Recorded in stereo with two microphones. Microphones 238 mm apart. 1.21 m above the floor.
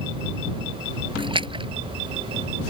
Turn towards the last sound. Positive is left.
turn(degrees=-20)  # may be behind; listen again after turning